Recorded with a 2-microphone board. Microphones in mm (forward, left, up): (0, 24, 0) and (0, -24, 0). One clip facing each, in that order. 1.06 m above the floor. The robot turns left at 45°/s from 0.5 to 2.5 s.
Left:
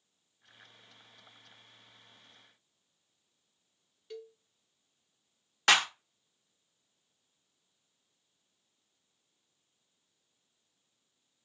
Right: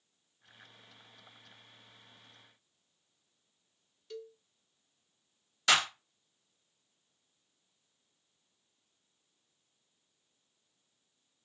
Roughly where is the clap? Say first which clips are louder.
Left 2 dB; left.